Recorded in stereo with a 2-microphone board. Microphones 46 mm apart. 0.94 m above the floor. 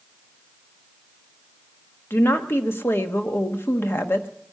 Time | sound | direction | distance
2.1 | a woman speaking | 60° left (ahead or behind) | 1.2 m